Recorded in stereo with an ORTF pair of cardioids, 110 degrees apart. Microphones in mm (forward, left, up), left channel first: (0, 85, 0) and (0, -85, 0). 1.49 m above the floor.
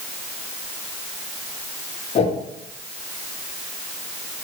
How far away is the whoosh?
About 0.9 m.